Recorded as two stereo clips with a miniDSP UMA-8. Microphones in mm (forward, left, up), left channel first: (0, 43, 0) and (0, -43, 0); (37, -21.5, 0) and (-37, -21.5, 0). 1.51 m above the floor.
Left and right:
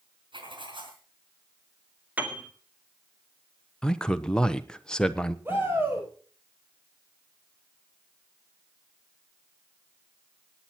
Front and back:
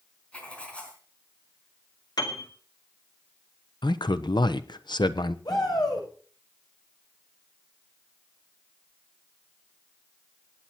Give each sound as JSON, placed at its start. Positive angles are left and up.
{"t": 0.3, "sound": "writing", "azimuth_deg": -75, "distance_m": 4.0}
{"t": 2.2, "sound": "a piano", "azimuth_deg": -20, "distance_m": 2.0}
{"t": 3.8, "sound": "a man speaking", "azimuth_deg": 10, "distance_m": 1.0}
{"t": 5.5, "sound": "a shout", "azimuth_deg": -25, "distance_m": 7.5}